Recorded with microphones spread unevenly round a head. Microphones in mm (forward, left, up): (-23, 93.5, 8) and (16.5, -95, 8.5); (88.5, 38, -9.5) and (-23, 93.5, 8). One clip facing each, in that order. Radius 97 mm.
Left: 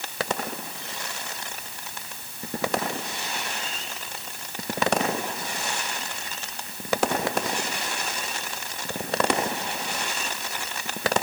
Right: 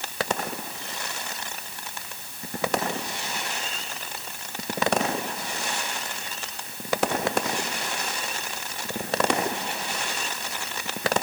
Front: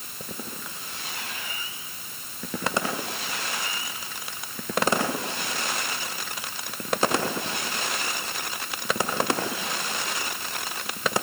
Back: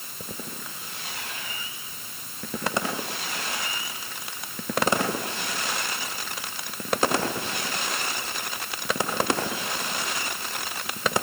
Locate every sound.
Only background noise.